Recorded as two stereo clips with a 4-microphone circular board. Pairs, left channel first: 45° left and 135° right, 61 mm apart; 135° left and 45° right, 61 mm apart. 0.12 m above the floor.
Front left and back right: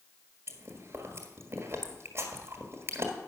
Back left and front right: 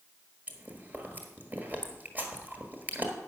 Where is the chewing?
100° right, 1.8 m.